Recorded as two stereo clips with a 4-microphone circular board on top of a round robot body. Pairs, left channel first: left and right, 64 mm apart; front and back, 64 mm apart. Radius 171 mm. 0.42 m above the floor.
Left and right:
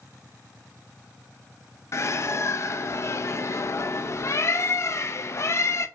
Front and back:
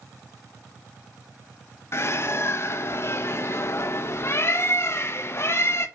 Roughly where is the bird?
Ahead left.